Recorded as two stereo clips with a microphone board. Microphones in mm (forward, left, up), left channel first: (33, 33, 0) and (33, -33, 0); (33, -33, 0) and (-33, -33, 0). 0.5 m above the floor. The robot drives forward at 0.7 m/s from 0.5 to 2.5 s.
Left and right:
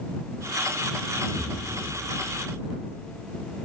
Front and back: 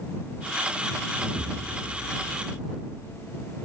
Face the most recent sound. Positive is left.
turn(degrees=-160)